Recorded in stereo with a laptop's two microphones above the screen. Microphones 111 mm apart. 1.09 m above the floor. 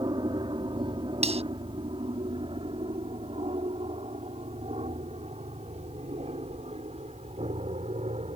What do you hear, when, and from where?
0.0 s an aircraft: 40° right (ahead or behind); by 8.4 s 70° right (ahead or behind)
1.2 s cutlery clinking: 70° right (ahead or behind)